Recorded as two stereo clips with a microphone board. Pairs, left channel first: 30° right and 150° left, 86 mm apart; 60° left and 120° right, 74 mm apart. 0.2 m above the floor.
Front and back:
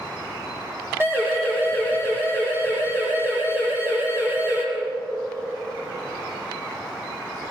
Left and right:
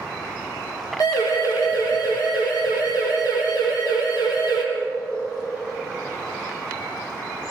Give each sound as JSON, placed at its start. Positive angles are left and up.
{"t": 1.0, "sound": "a siren", "azimuth_deg": 85, "distance_m": 7.5}